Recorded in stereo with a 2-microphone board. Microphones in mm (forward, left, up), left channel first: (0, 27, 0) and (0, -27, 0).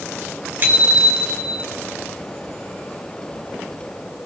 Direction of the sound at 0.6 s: 40° right (ahead or behind).